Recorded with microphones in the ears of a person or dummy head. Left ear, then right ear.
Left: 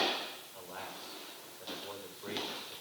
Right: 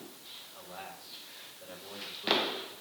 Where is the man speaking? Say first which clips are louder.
Left 1 dB; 65° left (ahead or behind), 6.5 m.